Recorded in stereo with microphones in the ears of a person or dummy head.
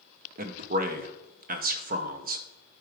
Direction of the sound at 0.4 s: 45° right (ahead or behind).